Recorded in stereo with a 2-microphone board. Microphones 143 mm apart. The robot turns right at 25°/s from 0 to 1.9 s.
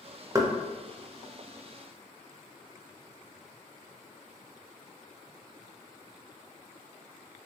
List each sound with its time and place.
0.3 s knocking: 25° right (ahead or behind), 0.5 m